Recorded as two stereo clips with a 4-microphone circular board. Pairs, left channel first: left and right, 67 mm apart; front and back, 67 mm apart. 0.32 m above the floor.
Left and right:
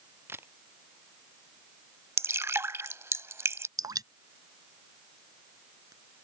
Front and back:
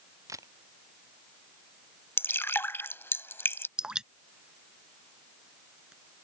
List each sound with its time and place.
0.3 s a camera shutter: 145° right
2.2 s dripping: 50° right
3.8 s dripping: 105° right